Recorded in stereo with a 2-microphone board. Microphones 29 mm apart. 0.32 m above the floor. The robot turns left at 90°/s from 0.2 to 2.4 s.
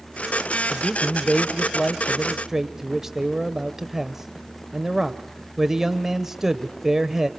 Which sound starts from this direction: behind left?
A man speaking, at 0.7 s.